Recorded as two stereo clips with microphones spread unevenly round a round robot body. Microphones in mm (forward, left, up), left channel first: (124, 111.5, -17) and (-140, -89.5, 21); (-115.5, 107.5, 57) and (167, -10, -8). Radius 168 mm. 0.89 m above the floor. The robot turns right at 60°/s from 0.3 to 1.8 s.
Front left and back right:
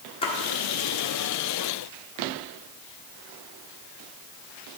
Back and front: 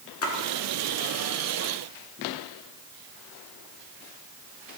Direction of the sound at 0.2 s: 110° left.